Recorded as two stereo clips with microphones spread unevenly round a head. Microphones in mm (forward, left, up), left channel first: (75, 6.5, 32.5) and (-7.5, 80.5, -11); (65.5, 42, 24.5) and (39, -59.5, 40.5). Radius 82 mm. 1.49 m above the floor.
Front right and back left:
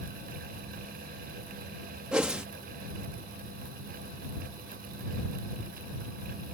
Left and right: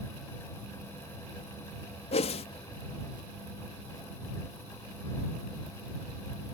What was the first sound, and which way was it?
A whoosh, 50° left.